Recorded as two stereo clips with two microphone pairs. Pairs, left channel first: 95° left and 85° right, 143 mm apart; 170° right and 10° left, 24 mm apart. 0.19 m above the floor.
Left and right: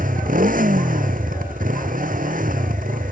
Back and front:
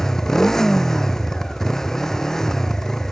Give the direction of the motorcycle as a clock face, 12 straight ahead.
3 o'clock.